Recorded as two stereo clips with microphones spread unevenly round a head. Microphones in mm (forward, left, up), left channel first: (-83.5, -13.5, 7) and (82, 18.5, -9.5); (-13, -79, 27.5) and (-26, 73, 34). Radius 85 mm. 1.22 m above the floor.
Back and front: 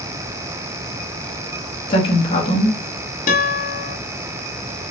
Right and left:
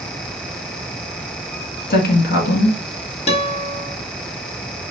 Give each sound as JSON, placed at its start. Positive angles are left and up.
{"t": 1.9, "sound": "a woman speaking", "azimuth_deg": -105, "distance_m": 2.0}
{"t": 3.3, "sound": "a guitar", "azimuth_deg": -135, "distance_m": 1.3}